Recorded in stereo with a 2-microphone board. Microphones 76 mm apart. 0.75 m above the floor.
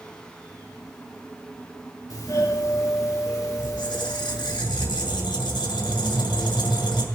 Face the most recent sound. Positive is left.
turn(degrees=80)